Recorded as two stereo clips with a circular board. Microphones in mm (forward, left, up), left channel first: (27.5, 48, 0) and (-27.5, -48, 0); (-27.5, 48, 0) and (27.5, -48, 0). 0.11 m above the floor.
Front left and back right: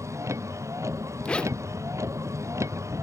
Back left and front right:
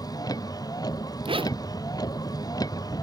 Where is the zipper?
20° right.